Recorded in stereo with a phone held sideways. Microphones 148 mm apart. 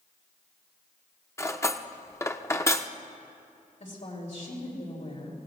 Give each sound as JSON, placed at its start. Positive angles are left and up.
{"t": 1.4, "sound": "cutlery clinking", "side_deg": 20, "distance_m": 0.5}
{"t": 3.8, "sound": "a woman speaking", "side_deg": 60, "distance_m": 4.0}